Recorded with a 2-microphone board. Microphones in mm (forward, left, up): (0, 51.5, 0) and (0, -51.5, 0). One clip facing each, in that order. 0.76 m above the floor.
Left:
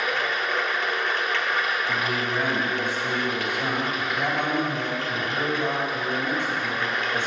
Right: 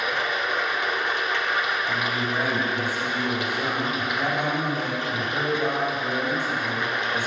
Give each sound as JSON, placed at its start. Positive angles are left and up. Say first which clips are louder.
{"t": 0.0, "sound": "running water", "louder": "even", "side_deg": -15, "distance_m": 0.7}
{"t": 1.9, "sound": "a man speaking", "louder": "even", "side_deg": -10, "distance_m": 3.5}